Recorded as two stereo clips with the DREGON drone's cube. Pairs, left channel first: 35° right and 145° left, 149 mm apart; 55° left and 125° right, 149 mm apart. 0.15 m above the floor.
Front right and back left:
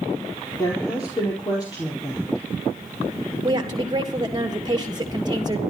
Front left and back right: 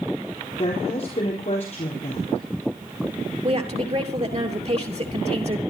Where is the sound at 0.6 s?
25° left, 4 m.